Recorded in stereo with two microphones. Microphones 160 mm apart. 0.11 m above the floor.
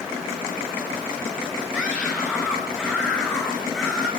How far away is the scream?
About 9.5 m.